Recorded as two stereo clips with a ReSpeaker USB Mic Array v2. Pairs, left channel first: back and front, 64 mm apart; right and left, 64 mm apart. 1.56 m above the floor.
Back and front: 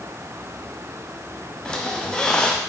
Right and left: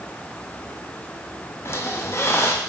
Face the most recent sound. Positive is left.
turn(degrees=-110)